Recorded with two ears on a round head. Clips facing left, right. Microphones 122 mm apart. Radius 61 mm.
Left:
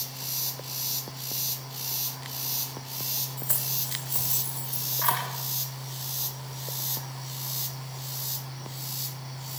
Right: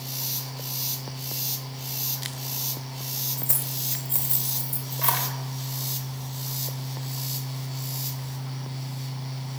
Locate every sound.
3.4 s keys jangling: 25° right (ahead or behind), 1.9 m